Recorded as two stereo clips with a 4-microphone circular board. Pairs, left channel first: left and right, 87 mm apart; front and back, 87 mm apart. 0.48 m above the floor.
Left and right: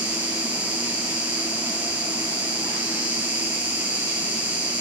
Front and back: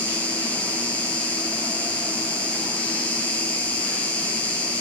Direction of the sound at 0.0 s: 45° right.